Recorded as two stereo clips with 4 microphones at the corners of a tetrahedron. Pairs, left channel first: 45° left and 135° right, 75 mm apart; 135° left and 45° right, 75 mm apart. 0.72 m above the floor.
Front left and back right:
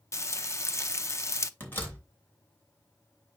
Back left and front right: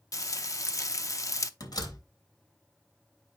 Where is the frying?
95° left, 0.6 m.